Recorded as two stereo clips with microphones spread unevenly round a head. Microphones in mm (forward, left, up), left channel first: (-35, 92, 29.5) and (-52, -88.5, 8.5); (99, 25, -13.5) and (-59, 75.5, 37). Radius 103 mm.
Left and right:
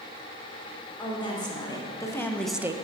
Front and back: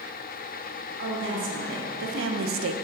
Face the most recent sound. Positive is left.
turn(degrees=-165)